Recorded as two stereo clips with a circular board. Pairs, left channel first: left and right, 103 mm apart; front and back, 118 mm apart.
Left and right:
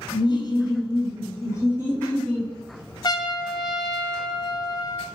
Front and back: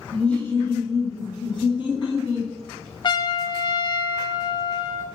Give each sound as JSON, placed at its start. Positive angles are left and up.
{"t": 0.1, "sound": "laughter", "azimuth_deg": 80, "distance_m": 1.2}
{"t": 3.0, "sound": "a trumpet", "azimuth_deg": 45, "distance_m": 0.6}